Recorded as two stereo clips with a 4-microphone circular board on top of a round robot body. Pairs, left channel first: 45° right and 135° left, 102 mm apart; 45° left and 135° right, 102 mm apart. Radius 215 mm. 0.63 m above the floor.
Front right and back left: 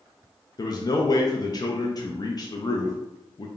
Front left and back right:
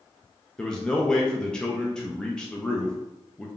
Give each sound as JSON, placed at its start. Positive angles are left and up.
{"t": 0.6, "sound": "a man speaking", "azimuth_deg": -35, "distance_m": 0.7}